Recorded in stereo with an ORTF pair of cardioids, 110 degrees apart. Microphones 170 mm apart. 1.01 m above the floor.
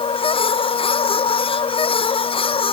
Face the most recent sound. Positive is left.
turn(degrees=35)